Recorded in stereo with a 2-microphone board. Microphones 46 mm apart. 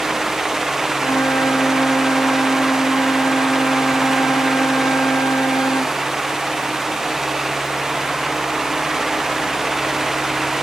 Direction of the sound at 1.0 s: 80° left.